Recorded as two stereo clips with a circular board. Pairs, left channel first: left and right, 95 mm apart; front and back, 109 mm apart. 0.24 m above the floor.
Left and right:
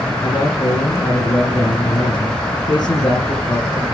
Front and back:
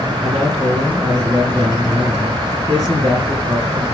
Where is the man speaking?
130° left, 3 m.